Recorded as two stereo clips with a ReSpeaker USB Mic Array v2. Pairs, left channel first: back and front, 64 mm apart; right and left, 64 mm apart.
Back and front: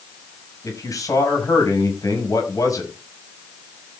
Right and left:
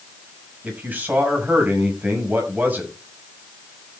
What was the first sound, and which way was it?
A man speaking, 150° left.